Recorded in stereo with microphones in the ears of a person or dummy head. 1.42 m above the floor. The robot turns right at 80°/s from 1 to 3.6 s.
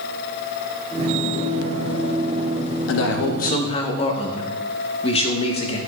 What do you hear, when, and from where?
2.9 s a man speaking: 90° left, 0.9 m; by 5.8 s 145° left, 0.9 m